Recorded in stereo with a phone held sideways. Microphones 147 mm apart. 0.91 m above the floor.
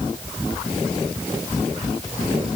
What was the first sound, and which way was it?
Only background noise.